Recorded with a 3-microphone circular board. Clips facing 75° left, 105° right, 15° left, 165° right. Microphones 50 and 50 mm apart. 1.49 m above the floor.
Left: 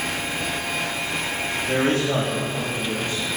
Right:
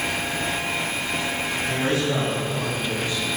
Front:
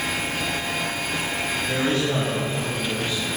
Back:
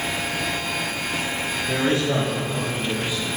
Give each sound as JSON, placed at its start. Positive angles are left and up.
{"t": 1.7, "sound": "a man speaking", "azimuth_deg": 120, "distance_m": 4.0}